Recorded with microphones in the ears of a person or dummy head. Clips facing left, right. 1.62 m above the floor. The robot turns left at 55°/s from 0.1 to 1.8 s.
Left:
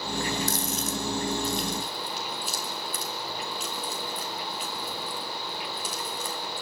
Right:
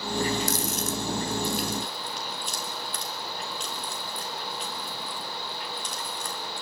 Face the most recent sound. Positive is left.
turn(degrees=5)  # may be behind; listen again after turning